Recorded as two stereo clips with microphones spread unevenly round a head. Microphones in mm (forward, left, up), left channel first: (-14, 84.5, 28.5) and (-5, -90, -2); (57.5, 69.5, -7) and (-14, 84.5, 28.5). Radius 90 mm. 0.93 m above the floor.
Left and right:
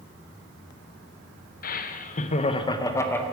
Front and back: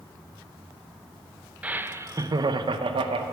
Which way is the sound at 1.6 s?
75° left.